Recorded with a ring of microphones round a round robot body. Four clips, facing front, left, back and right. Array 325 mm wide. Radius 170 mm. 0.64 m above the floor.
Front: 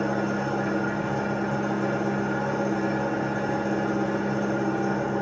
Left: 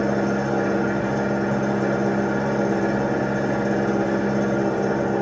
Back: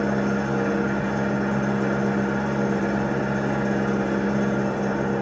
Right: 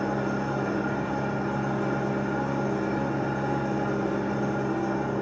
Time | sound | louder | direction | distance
0.0 | an engine running | left 6 dB, back 3 dB | 105° left | 2 m